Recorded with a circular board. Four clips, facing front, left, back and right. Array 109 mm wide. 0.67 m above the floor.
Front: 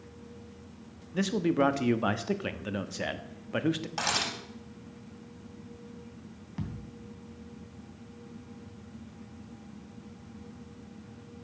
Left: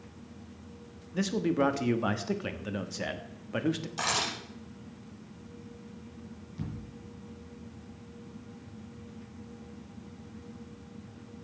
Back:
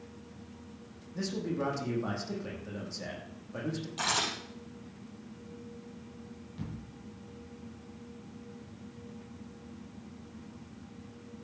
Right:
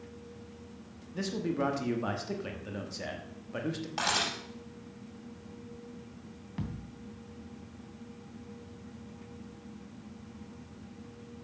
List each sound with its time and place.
1.1 s a man speaking: 25° left, 1.1 m
4.0 s a camera shutter: 40° right, 7 m
6.6 s a thud: 50° right, 2.5 m